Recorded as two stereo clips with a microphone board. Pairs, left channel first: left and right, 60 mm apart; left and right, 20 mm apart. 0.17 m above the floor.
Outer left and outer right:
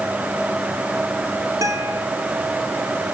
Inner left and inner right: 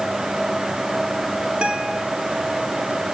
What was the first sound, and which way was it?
A guitar, 65° right (ahead or behind).